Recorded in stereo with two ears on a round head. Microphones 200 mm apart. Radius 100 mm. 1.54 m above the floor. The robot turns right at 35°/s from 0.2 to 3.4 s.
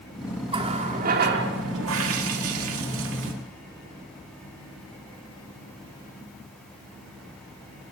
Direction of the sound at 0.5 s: 155° right.